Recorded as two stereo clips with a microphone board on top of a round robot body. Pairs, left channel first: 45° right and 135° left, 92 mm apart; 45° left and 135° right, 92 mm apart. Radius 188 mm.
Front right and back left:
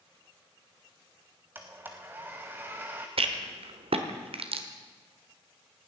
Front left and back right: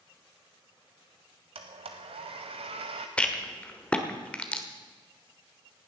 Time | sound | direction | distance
1.6 | a blender | 155° right | 0.5 m
3.2 | a rattle | 125° left | 1.3 m